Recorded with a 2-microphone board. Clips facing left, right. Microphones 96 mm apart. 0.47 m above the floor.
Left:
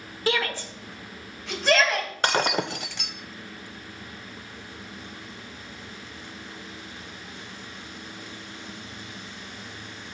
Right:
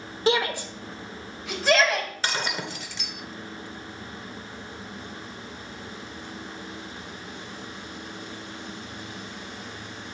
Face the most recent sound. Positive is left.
turn(degrees=60)  # may be behind; listen again after turning